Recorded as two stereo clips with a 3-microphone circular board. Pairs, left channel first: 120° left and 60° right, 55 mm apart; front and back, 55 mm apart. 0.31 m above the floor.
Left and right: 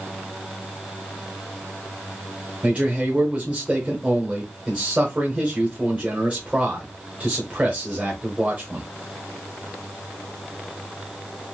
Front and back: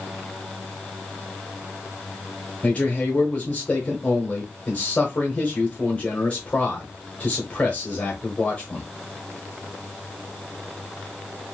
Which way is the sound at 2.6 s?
35° right.